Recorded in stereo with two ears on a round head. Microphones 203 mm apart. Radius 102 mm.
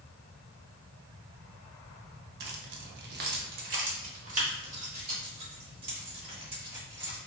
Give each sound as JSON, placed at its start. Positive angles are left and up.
{"t": 2.4, "sound": "keys jangling", "side_deg": -45, "distance_m": 0.5}